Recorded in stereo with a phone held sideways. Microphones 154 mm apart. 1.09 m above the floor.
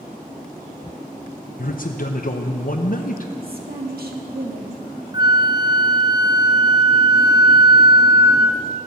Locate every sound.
1.6 s a man speaking: 65° left (ahead or behind), 0.7 m
3.4 s a woman speaking: 80° right, 1.8 m
5.1 s a flute: 25° right (ahead or behind), 0.6 m